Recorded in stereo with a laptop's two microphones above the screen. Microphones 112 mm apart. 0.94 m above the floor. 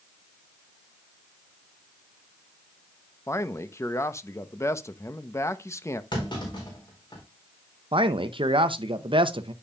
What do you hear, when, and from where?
3.3 s a man speaking: 25° left (ahead or behind), 0.8 m
6.1 s a clunk: 45° left (ahead or behind), 4 m
7.9 s a man speaking: 50° right (ahead or behind), 0.7 m